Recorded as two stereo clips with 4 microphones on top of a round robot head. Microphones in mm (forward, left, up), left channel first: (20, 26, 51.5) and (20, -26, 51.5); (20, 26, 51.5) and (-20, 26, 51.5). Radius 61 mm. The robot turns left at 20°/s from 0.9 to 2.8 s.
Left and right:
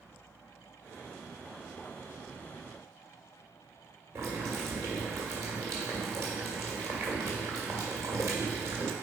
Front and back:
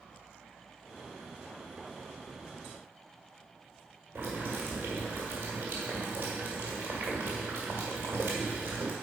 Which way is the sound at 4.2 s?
130° right.